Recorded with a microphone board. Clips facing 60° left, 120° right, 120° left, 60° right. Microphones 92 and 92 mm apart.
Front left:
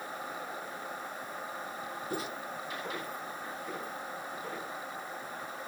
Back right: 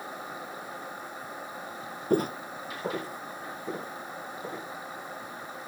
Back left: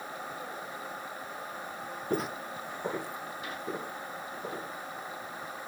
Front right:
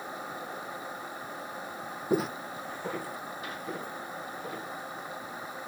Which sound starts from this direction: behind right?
Footsteps, at 2.1 s.